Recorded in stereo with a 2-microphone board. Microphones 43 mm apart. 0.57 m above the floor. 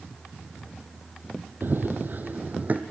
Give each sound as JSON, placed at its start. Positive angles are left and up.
{"t": 1.6, "sound": "running footsteps", "side_deg": -55, "distance_m": 1.0}